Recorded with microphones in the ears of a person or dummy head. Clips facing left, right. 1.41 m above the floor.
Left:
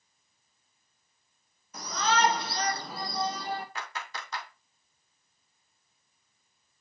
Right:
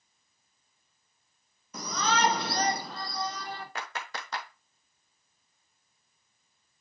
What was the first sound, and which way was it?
A shout, 75° right (ahead or behind).